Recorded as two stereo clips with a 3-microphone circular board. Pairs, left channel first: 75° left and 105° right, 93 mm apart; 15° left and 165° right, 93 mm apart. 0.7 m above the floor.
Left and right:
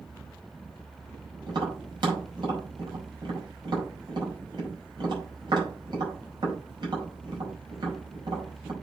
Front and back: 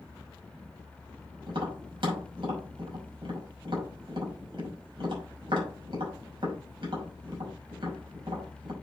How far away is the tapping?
About 5.5 m.